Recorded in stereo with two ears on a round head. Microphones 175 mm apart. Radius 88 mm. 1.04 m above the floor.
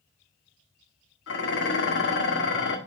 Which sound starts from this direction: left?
Dishes clattering, at 1.3 s.